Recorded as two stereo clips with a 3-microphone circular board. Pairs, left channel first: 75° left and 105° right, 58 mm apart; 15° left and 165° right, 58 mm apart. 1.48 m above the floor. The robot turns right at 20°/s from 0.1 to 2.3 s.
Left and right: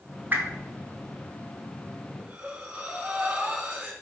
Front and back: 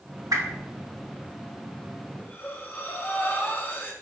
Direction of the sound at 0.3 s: 160° right.